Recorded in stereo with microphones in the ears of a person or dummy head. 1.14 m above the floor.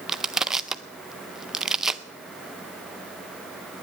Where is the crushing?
5° right (ahead or behind), 0.5 m.